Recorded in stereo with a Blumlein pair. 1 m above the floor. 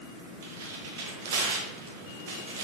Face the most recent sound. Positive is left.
turn(degrees=-55)